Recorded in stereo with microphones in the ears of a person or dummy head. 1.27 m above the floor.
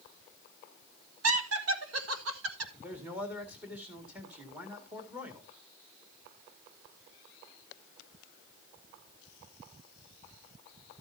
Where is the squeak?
I don't hear a squeak.